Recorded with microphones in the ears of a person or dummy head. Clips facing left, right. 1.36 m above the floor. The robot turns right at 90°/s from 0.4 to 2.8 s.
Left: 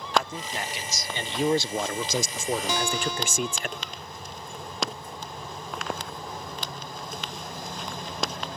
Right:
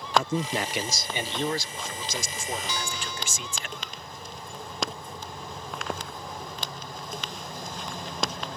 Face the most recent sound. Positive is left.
turn(degrees=55)  # may be behind; listen again after turning